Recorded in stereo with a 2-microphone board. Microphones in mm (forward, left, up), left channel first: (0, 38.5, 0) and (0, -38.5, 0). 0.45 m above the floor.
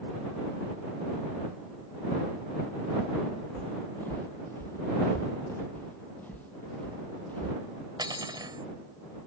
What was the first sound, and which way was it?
Footsteps, 20° left (ahead or behind).